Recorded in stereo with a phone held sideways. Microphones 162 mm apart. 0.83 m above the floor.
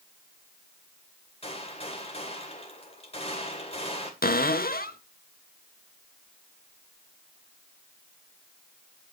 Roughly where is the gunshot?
Left.